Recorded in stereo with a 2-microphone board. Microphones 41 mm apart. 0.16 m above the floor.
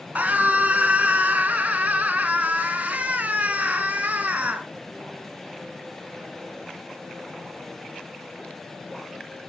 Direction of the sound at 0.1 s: 40° right (ahead or behind).